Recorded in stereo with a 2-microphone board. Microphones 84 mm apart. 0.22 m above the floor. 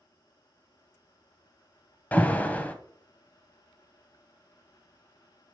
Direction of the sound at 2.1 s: 20° left (ahead or behind).